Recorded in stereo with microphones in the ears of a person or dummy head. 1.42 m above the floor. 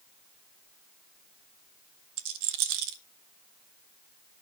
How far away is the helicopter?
I don't hear a helicopter.